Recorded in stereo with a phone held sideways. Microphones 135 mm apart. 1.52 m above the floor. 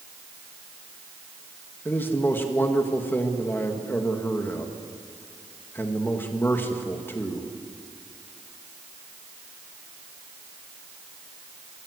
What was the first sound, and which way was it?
A man speaking, 15° left (ahead or behind).